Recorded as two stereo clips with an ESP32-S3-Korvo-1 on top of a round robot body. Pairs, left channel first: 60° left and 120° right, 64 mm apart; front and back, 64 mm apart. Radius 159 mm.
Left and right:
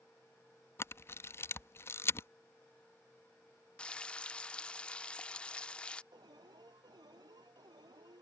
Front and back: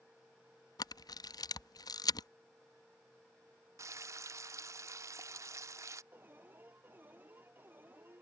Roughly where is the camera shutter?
Ahead.